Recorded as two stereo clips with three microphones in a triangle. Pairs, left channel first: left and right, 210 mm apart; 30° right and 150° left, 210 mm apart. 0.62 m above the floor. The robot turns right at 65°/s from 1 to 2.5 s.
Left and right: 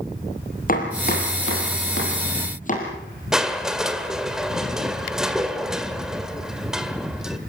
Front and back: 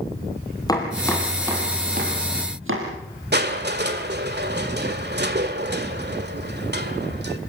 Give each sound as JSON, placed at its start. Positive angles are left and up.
{"t": 0.7, "sound": "chopping", "azimuth_deg": 40, "distance_m": 5.0}
{"t": 3.3, "sound": "crushing", "azimuth_deg": -175, "distance_m": 1.8}